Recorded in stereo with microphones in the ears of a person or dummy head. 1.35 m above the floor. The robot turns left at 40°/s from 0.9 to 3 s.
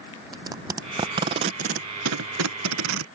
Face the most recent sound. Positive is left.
turn(degrees=-75)  # may be behind; listen again after turning